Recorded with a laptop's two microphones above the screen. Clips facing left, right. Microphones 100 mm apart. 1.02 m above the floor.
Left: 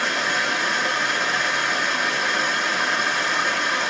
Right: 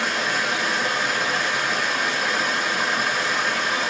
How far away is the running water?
About 0.8 m.